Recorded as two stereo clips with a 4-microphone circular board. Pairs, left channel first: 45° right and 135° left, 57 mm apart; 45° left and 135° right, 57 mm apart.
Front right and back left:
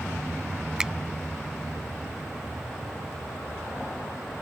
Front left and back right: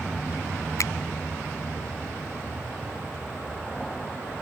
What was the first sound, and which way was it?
A finger snap, 60° left.